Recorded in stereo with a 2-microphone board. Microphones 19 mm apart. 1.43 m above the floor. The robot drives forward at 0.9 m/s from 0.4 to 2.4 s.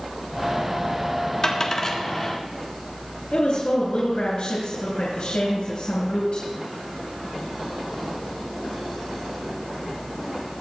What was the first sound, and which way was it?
A dropped coin, 30° left (ahead or behind).